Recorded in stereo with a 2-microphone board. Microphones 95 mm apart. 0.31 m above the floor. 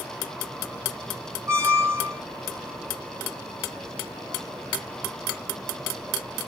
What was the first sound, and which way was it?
A squeak, 25° right (ahead or behind).